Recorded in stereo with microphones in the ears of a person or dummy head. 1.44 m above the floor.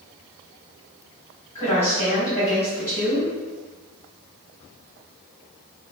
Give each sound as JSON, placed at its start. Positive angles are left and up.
{"t": 1.6, "sound": "a woman speaking", "side_deg": 25, "distance_m": 1.9}